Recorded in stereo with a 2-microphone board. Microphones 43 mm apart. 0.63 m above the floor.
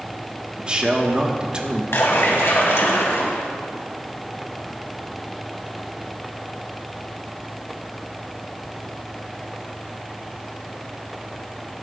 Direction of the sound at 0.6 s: 25° right (ahead or behind).